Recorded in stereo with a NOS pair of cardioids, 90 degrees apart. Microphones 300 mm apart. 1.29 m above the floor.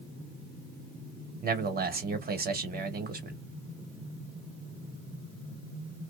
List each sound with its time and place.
1.4 s a man speaking: 30° right, 1.2 m